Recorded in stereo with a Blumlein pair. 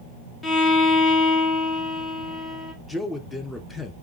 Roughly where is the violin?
Ahead.